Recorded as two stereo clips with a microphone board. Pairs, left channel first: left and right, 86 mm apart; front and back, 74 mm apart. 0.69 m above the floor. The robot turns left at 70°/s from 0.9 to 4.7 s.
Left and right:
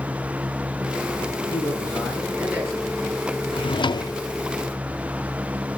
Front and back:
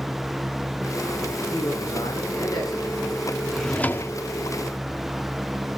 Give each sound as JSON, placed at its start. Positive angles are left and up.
{"t": 1.5, "sound": "a man speaking", "azimuth_deg": 50, "distance_m": 9.5}
{"t": 3.5, "sound": "a drawer", "azimuth_deg": 90, "distance_m": 0.6}